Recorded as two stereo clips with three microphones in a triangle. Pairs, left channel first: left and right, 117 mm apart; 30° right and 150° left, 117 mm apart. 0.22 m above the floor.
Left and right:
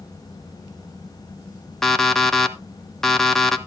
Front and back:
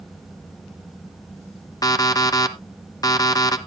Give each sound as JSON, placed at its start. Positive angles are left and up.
{"t": 1.8, "sound": "an alarm clock", "azimuth_deg": 5, "distance_m": 1.0}